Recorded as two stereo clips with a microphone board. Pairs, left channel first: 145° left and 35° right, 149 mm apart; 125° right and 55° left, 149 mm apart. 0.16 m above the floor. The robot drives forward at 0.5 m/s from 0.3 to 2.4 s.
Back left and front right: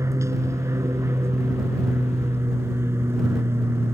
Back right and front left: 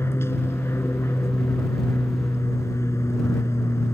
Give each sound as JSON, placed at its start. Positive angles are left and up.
{"t": 0.0, "sound": "an aircraft", "azimuth_deg": -75}